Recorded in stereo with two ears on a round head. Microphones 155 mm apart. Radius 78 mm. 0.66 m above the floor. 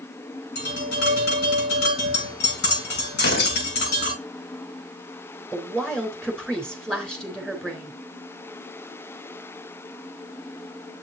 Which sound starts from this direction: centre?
A woman speaking, at 5.5 s.